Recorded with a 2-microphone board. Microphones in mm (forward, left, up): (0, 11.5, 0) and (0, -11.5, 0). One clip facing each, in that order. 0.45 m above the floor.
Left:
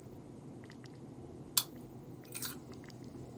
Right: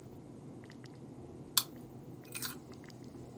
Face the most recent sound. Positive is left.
turn(degrees=-35)  # may be behind; listen again after turning